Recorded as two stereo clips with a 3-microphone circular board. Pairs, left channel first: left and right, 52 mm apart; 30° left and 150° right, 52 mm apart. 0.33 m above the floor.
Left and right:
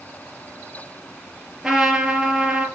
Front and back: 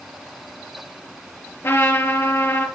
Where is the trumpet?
10° right, 3.5 m.